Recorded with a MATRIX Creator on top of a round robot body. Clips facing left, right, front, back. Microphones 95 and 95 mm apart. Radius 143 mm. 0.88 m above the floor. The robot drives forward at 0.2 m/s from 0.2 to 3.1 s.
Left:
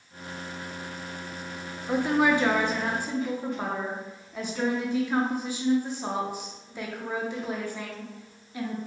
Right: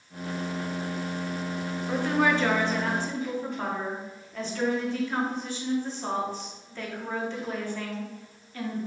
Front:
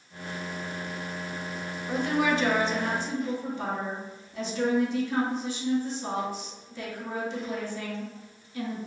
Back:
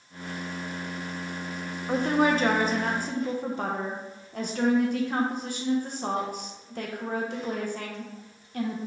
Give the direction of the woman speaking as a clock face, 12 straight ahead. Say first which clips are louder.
Left 2 dB, back 3 dB; 7 o'clock.